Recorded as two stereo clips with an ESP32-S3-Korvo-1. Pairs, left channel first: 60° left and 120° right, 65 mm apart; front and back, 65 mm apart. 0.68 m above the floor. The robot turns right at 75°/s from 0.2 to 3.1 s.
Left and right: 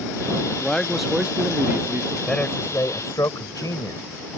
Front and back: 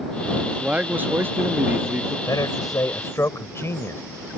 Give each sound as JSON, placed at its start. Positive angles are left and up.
{"t": 0.5, "sound": "a man speaking", "azimuth_deg": 110}
{"t": 2.3, "sound": "a man speaking", "azimuth_deg": -20}